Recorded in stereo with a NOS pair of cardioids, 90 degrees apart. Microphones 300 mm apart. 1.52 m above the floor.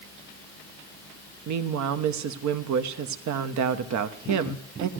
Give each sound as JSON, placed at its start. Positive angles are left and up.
{"t": 1.5, "sound": "a woman speaking", "azimuth_deg": -70, "distance_m": 1.1}